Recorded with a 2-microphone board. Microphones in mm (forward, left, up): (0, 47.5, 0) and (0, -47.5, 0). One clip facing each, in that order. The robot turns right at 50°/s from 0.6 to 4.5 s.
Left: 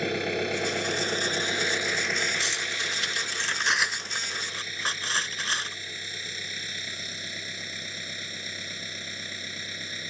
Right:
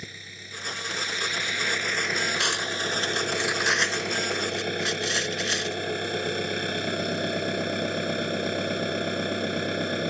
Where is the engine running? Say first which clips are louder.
Left 17 dB; 105° left; by 10.1 s 60° right.